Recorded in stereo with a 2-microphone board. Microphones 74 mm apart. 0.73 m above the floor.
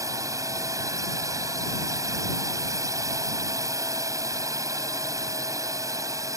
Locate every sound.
0.0 s a drone: 50° right (ahead or behind)